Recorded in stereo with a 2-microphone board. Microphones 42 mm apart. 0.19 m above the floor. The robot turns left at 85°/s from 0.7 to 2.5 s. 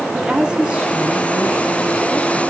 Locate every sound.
0.1 s a woman speaking: 25° right, 2.5 m; by 2.4 s 170° right, 2.5 m